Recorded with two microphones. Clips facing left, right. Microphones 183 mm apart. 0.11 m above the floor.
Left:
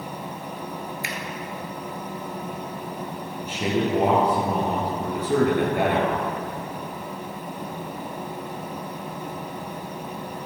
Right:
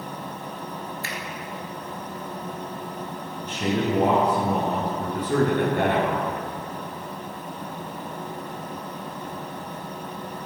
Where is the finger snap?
20° left (ahead or behind), 1.3 m.